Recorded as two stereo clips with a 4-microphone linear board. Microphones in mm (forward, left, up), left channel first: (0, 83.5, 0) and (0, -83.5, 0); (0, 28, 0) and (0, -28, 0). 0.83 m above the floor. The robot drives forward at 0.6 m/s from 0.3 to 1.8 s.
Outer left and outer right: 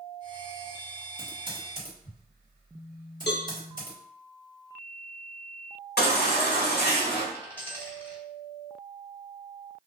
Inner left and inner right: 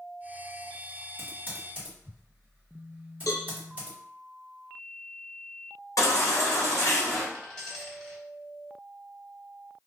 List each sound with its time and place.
1.2 s typing on a keyboard: 35° right (ahead or behind), 1.1 m; by 4.0 s 25° right (ahead or behind), 1.4 m
3.3 s a cowbell: 85° left, 0.5 m
6.0 s a baby crying: 70° left (ahead or behind), 0.9 m
7.3 s a dropped coin: 10° left (ahead or behind), 1.6 m